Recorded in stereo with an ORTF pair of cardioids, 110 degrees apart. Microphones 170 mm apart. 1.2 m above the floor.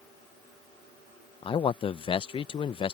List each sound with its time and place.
1.4 s a man speaking: 30° left